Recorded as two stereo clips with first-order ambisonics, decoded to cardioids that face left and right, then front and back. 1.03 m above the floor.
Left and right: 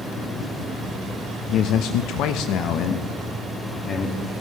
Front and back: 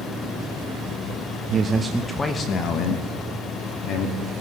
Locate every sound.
1.5 s a man speaking: 130° left, 0.8 m; by 4.2 s 30° left, 2 m